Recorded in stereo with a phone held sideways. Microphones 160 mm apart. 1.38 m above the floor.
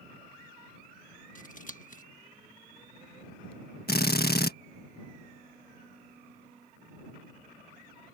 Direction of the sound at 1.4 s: 55° left (ahead or behind).